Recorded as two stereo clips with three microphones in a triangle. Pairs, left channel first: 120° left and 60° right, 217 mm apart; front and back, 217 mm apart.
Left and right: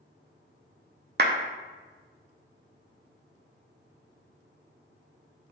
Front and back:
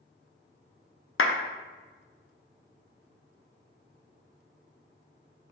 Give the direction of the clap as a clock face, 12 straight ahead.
1 o'clock.